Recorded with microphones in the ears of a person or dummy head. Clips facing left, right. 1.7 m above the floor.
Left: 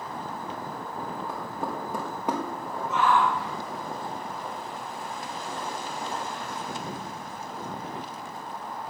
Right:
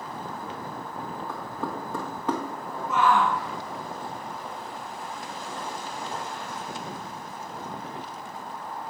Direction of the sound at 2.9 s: 55° right (ahead or behind).